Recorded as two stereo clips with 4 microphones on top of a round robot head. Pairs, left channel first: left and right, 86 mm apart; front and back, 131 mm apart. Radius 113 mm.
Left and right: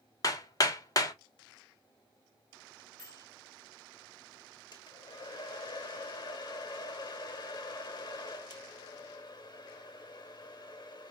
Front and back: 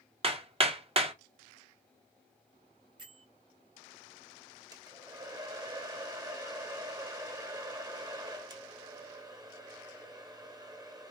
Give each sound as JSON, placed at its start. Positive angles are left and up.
{"t": 0.2, "sound": "hammering", "azimuth_deg": 135, "distance_m": 1.3}
{"t": 3.0, "sound": "a bell", "azimuth_deg": 125, "distance_m": 1.3}
{"t": 4.7, "sound": "a hair dryer", "azimuth_deg": 120, "distance_m": 1.5}